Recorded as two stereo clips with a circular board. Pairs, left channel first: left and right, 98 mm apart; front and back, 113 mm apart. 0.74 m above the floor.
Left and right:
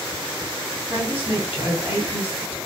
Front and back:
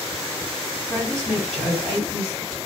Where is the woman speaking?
80° left, 1.8 m.